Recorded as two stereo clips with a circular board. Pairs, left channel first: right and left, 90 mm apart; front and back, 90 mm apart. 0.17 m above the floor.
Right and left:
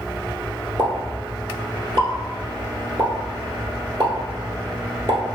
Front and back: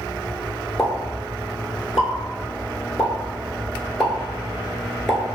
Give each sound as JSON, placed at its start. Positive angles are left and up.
{"t": 0.8, "sound": "a pop", "azimuth_deg": 90, "distance_m": 0.9}